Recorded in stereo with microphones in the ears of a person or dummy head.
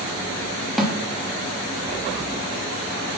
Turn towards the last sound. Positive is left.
turn(degrees=0)  # may be behind; listen again after turning